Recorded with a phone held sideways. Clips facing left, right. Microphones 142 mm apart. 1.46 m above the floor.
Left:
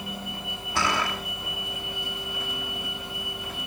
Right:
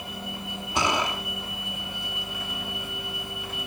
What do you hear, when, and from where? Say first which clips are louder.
0.8 s a gunshot: right 1 dB; 20° right (ahead or behind), 1.9 m